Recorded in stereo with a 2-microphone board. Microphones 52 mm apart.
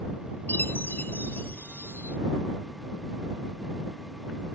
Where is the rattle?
I don't hear a rattle.